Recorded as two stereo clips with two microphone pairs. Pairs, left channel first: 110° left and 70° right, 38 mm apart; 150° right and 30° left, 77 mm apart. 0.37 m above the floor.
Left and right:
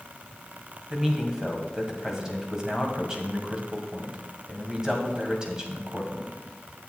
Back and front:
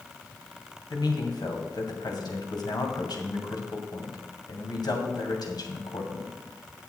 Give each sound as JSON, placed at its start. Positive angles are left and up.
{"t": 0.9, "sound": "a man speaking", "azimuth_deg": -145, "distance_m": 2.0}